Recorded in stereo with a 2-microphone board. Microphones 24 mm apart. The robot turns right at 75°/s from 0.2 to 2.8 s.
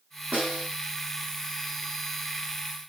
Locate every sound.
0.3 s a snare drum: 75° right (ahead or behind), 4.5 m